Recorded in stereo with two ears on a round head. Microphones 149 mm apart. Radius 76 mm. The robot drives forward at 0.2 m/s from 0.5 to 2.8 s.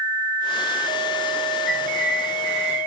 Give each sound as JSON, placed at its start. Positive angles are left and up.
{"t": 1.7, "sound": "a bird", "side_deg": 55, "distance_m": 3.0}